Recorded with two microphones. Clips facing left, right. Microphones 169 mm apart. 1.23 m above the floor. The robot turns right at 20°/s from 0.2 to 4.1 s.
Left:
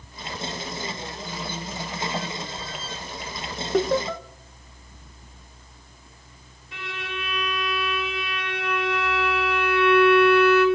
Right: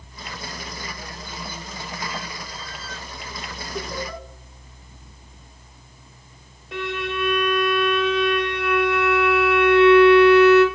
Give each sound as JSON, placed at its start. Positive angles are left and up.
{"t": 3.7, "sound": "laughter", "side_deg": 85, "distance_m": 0.8}
{"t": 6.7, "sound": "a violin", "side_deg": -70, "distance_m": 2.5}